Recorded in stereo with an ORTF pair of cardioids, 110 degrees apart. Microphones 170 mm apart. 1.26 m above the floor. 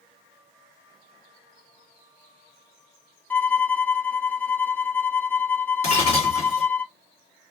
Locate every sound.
3.3 s a violin: 10° left, 0.6 m
5.8 s breaking glass: 40° left, 1.6 m